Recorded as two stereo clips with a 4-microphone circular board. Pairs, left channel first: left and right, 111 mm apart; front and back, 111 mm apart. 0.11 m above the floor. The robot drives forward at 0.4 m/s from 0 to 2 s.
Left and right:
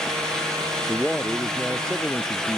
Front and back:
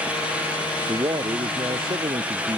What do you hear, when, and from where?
0.9 s a man speaking: 170° left; by 2.6 s 175° left